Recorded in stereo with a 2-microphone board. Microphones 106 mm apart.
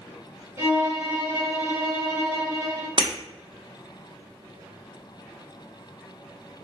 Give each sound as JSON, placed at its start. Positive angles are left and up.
{"t": 0.6, "sound": "a violin", "side_deg": -30, "distance_m": 1.1}
{"t": 3.0, "sound": "breaking glass", "side_deg": -50, "distance_m": 1.0}